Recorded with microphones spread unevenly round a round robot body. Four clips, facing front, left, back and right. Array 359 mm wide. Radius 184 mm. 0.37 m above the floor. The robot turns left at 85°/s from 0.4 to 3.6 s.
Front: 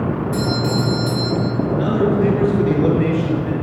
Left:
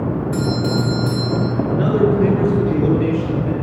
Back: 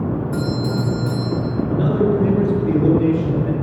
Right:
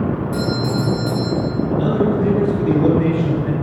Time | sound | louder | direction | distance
0.3 | a doorbell | left 1 dB, front 2 dB | 175° left | 4 m
1.7 | a man speaking | left 2 dB, back 1 dB | 80° left | 5.5 m